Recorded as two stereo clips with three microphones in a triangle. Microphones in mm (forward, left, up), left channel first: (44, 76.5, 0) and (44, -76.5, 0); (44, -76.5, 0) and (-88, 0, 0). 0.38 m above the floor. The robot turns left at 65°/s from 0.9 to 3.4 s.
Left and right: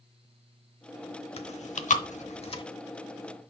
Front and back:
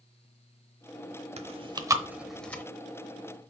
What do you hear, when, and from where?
1.4 s chewing: 125° left, 0.7 m; by 2.6 s 40° left, 0.7 m